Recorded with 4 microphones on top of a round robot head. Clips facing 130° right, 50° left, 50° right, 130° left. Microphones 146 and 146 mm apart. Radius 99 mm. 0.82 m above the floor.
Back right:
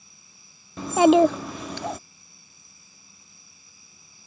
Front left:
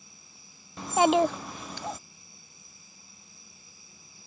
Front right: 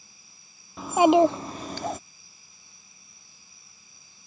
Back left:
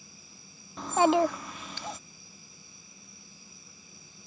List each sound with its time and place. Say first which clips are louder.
0.8 s a child speaking: back right 6 dB, front right 5 dB; 140° right; by 2.0 s 95° right